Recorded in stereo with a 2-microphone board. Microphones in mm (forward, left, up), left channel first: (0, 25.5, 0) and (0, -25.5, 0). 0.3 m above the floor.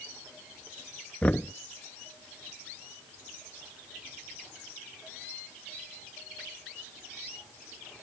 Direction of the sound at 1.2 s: 25° left (ahead or behind).